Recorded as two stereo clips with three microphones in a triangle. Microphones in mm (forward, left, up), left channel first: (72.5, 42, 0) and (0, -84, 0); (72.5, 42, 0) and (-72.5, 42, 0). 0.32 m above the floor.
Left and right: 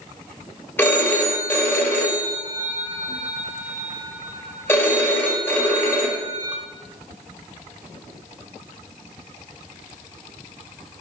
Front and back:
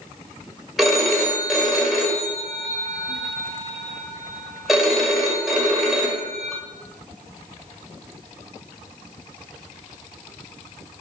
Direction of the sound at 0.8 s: 95° left.